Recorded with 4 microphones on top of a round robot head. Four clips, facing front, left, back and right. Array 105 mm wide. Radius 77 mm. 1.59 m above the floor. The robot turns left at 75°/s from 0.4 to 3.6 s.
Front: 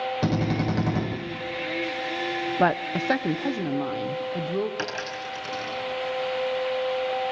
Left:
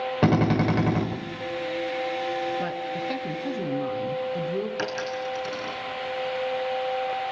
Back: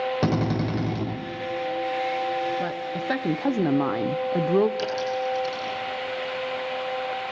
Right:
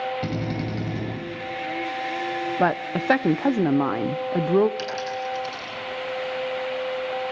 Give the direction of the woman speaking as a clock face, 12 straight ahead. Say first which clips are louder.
Right 6 dB, front 5 dB; 1 o'clock.